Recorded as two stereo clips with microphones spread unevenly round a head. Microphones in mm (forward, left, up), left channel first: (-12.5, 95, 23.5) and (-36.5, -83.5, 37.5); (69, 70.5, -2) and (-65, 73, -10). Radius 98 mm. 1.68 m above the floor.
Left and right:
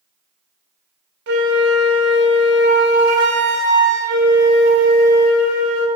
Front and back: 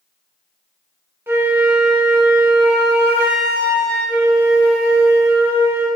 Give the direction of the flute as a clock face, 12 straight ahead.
3 o'clock.